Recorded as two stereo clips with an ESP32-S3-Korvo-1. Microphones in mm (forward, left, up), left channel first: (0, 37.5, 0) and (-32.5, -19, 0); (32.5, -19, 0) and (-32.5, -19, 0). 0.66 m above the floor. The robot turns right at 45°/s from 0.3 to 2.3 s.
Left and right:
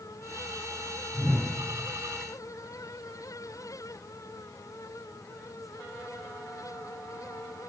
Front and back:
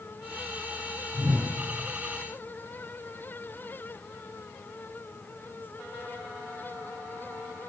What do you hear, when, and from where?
1.1 s a whoosh: 120° left, 9 m; by 1.5 s 140° left, 9 m